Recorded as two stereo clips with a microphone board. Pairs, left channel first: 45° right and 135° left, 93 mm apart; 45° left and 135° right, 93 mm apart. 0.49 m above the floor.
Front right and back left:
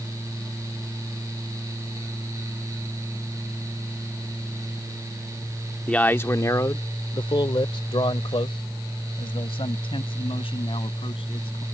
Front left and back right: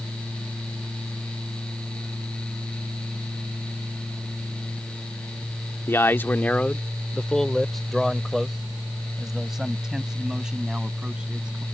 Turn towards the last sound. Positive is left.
turn(degrees=-55)